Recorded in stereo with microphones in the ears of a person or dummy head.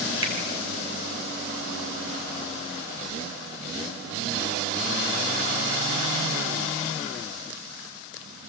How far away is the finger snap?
About 3.5 m.